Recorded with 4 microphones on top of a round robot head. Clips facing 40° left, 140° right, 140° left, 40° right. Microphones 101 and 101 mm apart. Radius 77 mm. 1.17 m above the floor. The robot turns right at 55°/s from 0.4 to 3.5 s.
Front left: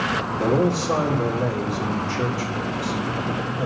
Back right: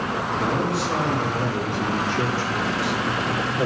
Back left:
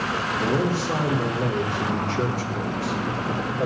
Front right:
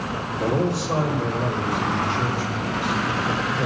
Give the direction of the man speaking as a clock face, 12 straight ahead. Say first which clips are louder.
Front left 5 dB, front right 2 dB; 10 o'clock.